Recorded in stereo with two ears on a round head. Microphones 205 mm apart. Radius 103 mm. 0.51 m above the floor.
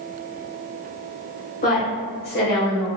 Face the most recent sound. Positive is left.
turn(degrees=50)  # may be behind; listen again after turning